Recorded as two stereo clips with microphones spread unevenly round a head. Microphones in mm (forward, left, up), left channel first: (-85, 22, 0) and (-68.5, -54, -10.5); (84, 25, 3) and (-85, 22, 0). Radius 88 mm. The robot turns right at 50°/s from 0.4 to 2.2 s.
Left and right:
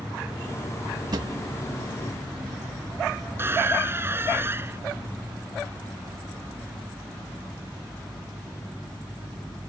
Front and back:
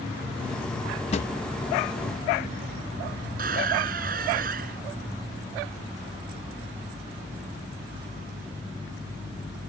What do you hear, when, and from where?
1.1 s a drawer: 45° right; by 1.3 s 35° right
3.4 s a squeak: 135° right